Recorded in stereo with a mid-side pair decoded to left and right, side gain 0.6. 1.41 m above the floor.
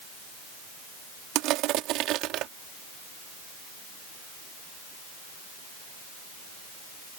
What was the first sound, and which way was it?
Crushing, 65° right.